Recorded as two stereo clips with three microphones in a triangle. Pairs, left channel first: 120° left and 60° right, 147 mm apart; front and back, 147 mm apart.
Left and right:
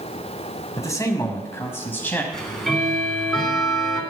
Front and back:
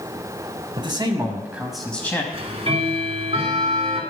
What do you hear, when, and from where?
0.8 s a man speaking: 170° left, 1.7 m; by 2.2 s 55° left, 1.6 m
2.3 s ticking: 155° right, 2.0 m